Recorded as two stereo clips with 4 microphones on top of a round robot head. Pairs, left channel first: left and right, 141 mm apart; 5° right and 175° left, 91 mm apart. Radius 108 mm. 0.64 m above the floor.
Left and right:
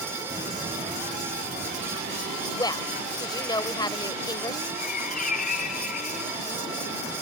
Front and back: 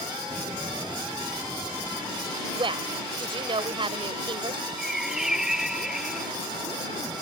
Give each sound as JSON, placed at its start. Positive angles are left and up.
{"t": 0.3, "sound": "footsteps", "azimuth_deg": -150}
{"t": 2.5, "sound": "a woman speaking", "azimuth_deg": 150}
{"t": 4.8, "sound": "a bird", "azimuth_deg": 90}